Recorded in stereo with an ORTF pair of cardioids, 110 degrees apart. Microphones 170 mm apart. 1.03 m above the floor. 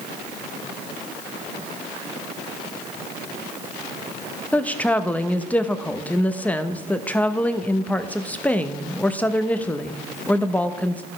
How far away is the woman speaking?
About 0.7 m.